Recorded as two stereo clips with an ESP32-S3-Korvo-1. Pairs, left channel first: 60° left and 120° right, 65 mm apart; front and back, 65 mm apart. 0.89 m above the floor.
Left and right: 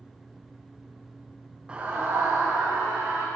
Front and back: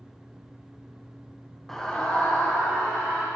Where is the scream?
75° right, 0.5 m; by 3.3 s 70° right, 2 m.